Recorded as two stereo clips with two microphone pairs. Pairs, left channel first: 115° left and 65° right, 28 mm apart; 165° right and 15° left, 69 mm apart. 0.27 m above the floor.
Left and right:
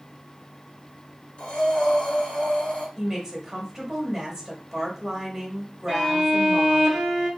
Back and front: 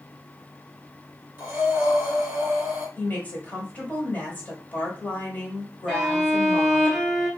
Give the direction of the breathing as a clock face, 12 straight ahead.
9 o'clock.